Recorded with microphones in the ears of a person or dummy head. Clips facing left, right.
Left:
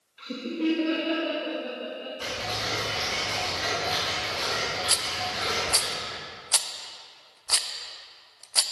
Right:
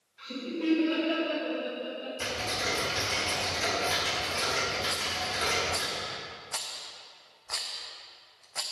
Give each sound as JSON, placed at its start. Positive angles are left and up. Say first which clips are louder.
{"t": 0.2, "sound": "laughter", "louder": "left 4 dB", "side_deg": 40, "distance_m": 1.2}
{"t": 2.2, "sound": "ticking", "louder": "even", "side_deg": -30, "distance_m": 1.8}
{"t": 4.9, "sound": "a rattle", "louder": "left 2 dB", "side_deg": 55, "distance_m": 0.6}